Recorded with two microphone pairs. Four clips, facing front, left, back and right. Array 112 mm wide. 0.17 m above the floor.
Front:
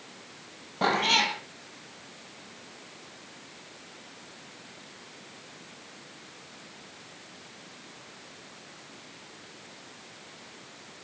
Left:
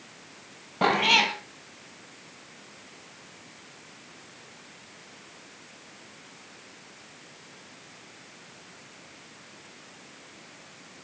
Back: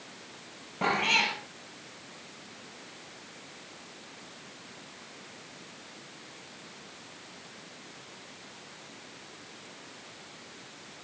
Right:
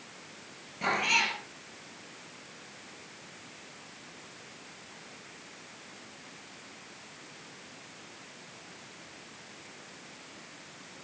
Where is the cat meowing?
70° left, 2.5 m.